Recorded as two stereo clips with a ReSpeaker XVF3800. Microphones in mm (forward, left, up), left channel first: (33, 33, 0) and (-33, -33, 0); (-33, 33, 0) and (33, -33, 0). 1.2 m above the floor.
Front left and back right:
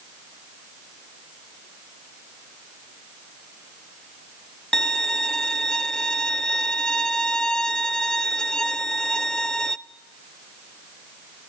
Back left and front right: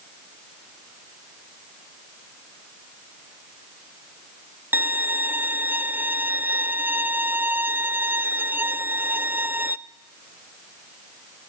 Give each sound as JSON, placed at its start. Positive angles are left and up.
{"t": 4.7, "sound": "a violin", "azimuth_deg": -30, "distance_m": 0.6}